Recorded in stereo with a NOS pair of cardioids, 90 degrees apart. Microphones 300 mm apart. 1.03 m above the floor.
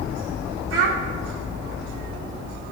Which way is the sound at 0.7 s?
50° right.